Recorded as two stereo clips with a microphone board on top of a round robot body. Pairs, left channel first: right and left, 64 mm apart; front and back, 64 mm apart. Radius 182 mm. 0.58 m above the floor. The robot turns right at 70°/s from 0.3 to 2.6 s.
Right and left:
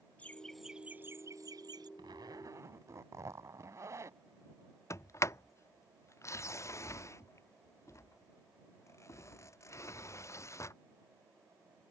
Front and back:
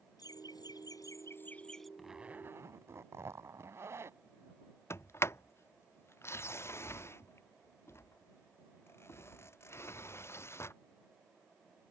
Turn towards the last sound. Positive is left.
turn(degrees=-50)